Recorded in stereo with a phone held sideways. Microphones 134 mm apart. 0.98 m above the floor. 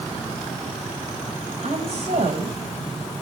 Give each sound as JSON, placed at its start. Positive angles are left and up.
{"t": 1.6, "sound": "a woman speaking", "side_deg": -60, "distance_m": 5.0}